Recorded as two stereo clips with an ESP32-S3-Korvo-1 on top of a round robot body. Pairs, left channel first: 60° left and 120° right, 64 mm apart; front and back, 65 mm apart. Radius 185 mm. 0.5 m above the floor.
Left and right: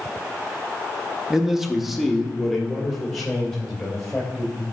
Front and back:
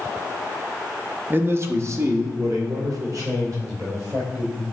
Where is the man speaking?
165° left, 0.9 m; by 4.6 s 145° left, 3 m.